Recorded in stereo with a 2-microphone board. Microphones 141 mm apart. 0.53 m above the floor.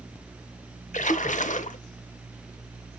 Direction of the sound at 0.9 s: 60° left (ahead or behind).